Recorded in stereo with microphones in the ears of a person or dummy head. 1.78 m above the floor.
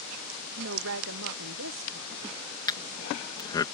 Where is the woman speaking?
60° right (ahead or behind); by 3.3 s 75° right (ahead or behind).